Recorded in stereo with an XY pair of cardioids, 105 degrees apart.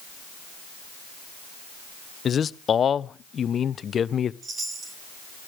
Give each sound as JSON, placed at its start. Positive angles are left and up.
{"t": 2.2, "sound": "a man speaking", "azimuth_deg": 45, "distance_m": 0.6}
{"t": 4.4, "sound": "a chime", "azimuth_deg": -45, "distance_m": 3.5}